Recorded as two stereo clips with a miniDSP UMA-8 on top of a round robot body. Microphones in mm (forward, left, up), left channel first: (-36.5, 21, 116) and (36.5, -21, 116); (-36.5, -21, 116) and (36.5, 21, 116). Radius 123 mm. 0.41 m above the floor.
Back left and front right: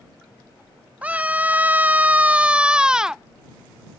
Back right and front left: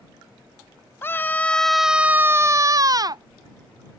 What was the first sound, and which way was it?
A scream, 100° right.